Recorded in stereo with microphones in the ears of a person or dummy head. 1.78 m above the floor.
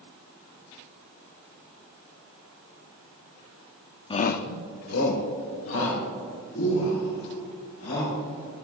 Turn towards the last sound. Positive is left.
turn(degrees=85)